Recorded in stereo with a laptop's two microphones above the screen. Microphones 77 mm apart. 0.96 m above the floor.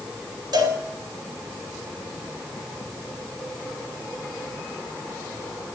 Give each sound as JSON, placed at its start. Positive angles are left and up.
{"t": 0.5, "sound": "a cowbell", "side_deg": -70, "distance_m": 3.0}